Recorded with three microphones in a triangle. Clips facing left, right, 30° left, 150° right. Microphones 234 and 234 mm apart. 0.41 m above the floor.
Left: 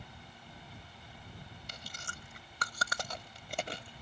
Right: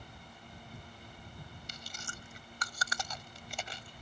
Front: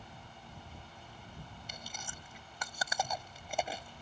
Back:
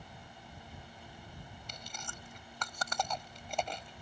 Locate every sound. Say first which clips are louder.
1.7 s chewing: right 1 dB, even; 110° left